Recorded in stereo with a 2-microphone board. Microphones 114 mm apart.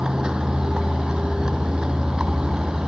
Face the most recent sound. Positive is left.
turn(degrees=-5)  # may be behind; listen again after turning